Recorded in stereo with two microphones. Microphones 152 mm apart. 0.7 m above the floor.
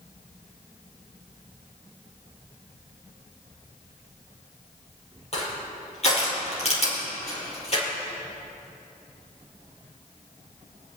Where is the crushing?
45° left (ahead or behind), 4.5 m.